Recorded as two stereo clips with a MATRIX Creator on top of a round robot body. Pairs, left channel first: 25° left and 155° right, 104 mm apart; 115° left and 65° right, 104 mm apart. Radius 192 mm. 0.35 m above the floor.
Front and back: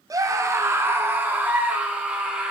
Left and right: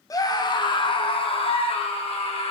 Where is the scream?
155° left, 1.5 m; by 2.5 s 125° left, 3 m.